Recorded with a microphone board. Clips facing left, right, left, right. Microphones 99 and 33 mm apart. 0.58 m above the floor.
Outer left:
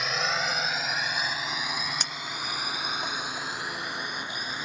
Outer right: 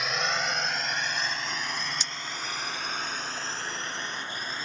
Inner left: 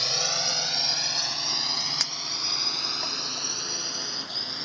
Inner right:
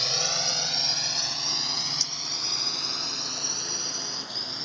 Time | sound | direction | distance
0.0 | a drone | centre (ahead or behind) | ?
2.0 | a clink | 50° left (ahead or behind) | ?